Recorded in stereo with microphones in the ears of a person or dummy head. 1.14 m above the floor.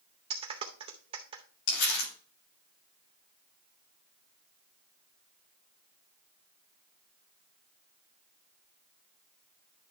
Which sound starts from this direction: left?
Crumpling, at 1.7 s.